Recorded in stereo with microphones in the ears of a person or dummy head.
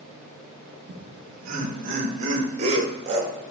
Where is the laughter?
60° right (ahead or behind), 1.7 m; by 3.3 s 35° right (ahead or behind), 3 m.